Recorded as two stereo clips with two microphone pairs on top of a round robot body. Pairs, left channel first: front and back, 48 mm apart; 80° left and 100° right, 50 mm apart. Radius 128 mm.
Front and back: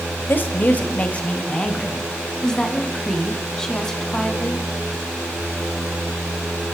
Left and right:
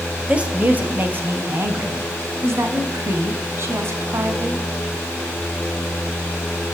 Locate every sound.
0.3 s a woman speaking: 35° right, 2.5 m; by 2.0 s 70° right, 4 m
2.4 s a woman speaking: 70° right, 4 m